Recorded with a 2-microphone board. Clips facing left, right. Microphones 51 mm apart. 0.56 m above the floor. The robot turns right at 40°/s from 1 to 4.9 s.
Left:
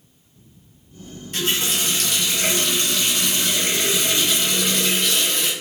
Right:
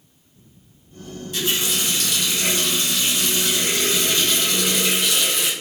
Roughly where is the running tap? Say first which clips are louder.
Left 1 dB; ahead left.